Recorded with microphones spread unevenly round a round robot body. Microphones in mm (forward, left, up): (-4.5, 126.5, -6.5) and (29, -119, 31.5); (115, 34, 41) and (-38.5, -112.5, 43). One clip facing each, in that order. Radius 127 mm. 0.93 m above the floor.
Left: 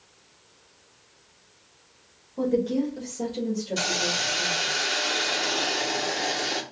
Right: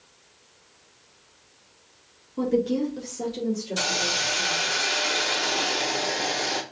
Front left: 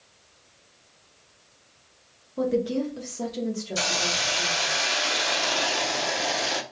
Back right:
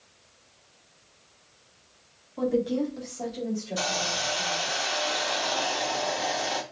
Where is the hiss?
5° right, 0.5 m.